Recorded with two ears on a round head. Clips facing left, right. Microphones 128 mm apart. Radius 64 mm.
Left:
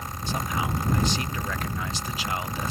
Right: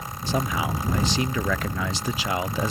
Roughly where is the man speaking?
Right.